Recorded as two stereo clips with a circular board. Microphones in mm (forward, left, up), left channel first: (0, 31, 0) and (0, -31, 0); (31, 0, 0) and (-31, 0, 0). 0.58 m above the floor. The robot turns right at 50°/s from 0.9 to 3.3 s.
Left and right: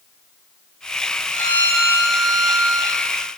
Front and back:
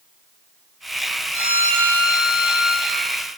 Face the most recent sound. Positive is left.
turn(degrees=-125)